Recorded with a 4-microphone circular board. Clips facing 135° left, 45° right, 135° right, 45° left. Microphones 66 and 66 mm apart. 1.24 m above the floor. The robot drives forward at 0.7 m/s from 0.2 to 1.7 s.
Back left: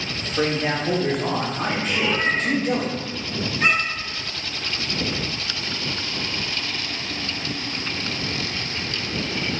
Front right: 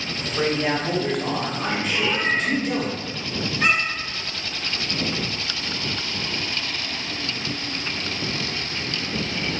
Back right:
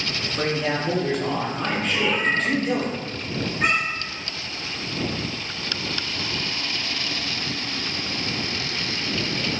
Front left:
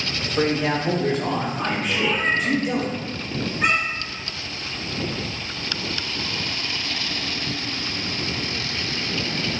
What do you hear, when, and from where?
0.4 s a man speaking: 35° left, 0.9 m; by 2.9 s 120° left, 0.7 m
1.9 s a cat meowing: 170° right, 1.8 m